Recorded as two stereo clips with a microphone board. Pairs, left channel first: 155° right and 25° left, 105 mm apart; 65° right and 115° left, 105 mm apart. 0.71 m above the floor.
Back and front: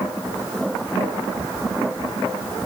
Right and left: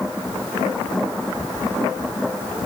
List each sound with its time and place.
Only background noise.